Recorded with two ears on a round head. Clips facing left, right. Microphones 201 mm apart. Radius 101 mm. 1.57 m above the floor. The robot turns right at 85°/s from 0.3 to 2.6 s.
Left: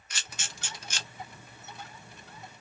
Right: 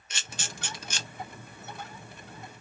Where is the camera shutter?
20° right (ahead or behind), 0.8 m; by 1.1 s 80° right, 0.8 m.